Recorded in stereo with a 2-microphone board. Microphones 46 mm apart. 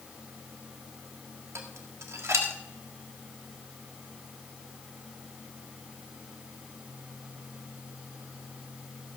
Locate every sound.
1.6 s dishes clattering: 80° right, 1.7 m